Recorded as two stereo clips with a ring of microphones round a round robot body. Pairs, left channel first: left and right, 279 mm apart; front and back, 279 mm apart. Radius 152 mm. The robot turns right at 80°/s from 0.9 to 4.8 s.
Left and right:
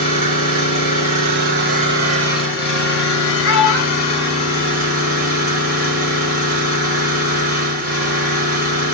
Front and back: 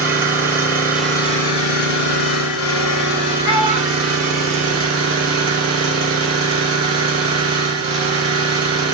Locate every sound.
0.0 s an engine running: 100° right, 1.3 m; by 8.9 s 145° right, 1.3 m
3.4 s a child speaking: 95° left, 1.6 m; by 5.4 s 155° right, 1.6 m